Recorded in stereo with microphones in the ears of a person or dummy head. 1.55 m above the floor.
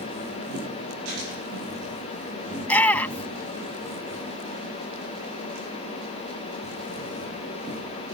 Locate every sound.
2.6 s a shout: 15° left (ahead or behind)